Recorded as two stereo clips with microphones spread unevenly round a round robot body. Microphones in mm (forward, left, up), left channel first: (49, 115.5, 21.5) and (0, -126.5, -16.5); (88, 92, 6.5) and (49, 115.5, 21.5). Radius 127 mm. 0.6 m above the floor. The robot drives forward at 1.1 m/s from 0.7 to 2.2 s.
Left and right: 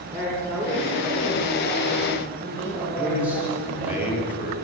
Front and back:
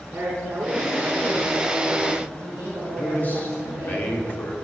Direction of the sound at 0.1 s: Straight behind.